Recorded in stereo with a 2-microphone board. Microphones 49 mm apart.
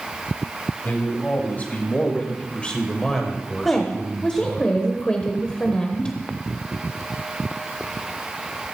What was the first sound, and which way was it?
A man speaking, 35° left (ahead or behind).